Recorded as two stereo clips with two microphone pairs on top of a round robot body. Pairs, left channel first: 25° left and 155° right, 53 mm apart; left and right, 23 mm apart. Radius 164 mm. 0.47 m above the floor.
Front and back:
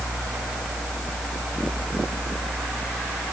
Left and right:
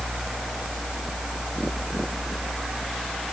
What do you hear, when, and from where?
Only background noise.